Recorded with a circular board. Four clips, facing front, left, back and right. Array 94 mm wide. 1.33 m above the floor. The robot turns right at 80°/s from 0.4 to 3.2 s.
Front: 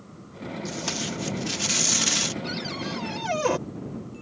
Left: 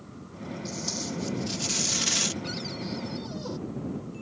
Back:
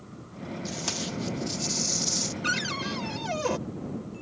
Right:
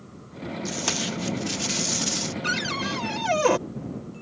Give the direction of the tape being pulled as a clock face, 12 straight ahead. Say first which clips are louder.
Right 6 dB, front 3 dB; 3 o'clock.